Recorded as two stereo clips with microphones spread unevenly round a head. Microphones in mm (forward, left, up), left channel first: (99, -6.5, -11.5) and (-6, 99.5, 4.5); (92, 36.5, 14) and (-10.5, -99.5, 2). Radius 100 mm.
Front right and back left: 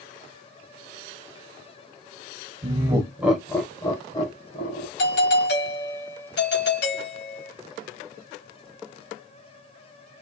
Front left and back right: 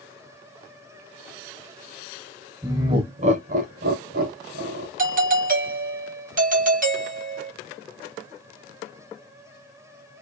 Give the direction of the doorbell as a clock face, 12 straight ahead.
3 o'clock.